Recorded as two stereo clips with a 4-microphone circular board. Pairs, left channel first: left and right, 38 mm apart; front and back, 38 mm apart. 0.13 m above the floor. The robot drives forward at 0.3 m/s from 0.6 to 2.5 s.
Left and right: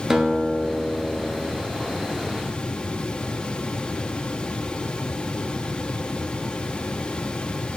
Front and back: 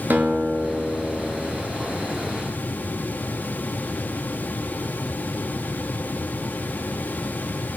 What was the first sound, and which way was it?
A guitar, 165° right.